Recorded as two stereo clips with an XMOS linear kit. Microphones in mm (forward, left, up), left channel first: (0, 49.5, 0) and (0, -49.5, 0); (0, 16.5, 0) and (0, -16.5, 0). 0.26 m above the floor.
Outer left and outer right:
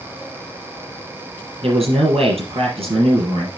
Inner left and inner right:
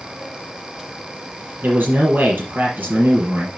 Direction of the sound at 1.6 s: 80° right.